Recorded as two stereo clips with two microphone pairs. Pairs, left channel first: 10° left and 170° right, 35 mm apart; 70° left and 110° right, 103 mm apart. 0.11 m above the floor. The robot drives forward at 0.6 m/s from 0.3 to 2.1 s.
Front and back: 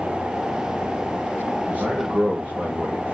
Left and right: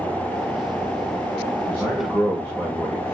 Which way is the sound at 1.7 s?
170° left.